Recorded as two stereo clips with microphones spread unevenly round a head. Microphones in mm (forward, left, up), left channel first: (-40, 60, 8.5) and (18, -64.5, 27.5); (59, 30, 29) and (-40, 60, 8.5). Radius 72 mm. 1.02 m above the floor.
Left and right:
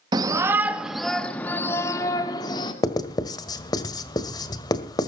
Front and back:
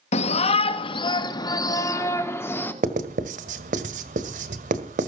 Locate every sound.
0.1 s a shout: straight ahead, 1.3 m; by 2.7 s 55° left, 2.5 m
2.8 s writing: straight behind, 1.7 m